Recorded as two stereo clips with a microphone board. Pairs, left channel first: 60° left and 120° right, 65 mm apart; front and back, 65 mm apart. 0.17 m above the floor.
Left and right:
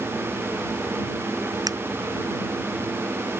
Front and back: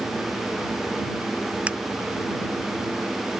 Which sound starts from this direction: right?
A finger snap, at 1.7 s.